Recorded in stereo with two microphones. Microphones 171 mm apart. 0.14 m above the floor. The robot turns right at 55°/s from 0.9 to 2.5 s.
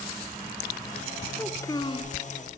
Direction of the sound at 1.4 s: 5° left.